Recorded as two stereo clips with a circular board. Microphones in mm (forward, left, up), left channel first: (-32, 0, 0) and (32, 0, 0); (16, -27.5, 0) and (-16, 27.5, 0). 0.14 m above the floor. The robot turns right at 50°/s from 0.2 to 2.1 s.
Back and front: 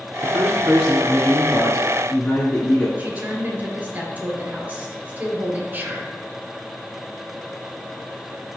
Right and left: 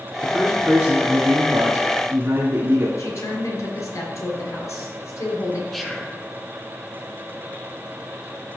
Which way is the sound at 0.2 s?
35° left.